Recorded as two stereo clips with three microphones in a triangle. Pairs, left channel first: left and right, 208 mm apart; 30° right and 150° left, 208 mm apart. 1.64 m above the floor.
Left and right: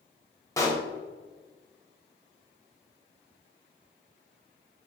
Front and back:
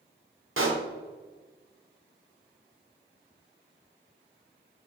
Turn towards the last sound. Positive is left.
turn(degrees=165)